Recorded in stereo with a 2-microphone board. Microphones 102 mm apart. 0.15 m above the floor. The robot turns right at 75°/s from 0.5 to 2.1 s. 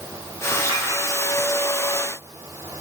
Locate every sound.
0.5 s a clink: 30° right (ahead or behind), 3 m; by 0.8 s 55° right (ahead or behind), 3 m